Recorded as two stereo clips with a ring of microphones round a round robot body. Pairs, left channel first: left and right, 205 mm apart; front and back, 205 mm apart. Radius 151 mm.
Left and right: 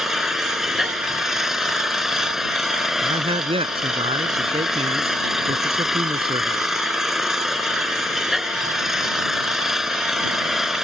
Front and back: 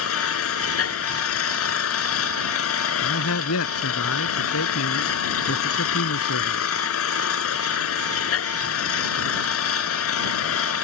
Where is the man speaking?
25° right.